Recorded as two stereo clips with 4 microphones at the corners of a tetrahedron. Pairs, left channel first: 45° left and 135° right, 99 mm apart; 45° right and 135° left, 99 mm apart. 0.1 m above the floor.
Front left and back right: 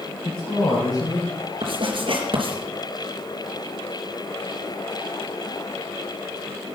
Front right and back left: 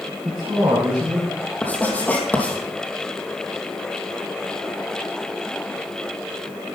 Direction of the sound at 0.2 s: 85° left.